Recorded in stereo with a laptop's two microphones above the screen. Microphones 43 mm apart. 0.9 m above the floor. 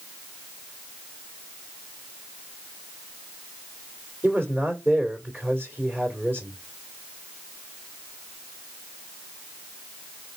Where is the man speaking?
40° right (ahead or behind), 2.5 m.